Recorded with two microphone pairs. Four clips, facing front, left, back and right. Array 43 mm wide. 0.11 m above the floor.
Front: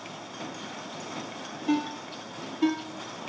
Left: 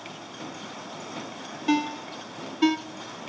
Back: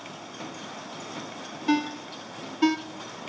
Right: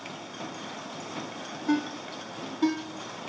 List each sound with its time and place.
1.7 s a ringtone: 115° left, 1.0 m